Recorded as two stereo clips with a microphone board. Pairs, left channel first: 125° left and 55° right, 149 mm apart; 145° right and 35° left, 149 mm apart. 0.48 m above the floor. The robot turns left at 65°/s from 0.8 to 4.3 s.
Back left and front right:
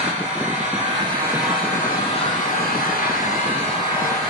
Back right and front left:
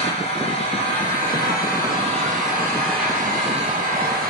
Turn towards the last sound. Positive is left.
turn(degrees=35)